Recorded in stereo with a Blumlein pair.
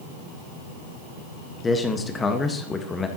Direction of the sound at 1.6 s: 15° left.